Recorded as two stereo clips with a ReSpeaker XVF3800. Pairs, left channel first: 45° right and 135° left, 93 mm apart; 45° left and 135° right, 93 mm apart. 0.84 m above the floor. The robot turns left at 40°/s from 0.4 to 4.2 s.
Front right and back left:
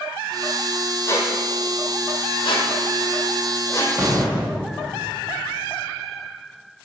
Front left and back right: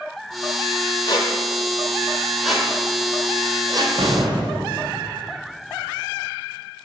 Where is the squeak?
10° left, 1.6 m; by 4.0 s 105° right, 1.6 m.